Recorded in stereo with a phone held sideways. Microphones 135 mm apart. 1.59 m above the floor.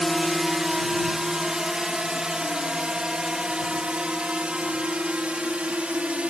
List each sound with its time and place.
0.0 s a drone: 5° right (ahead or behind); by 6.3 s 10° right (ahead or behind)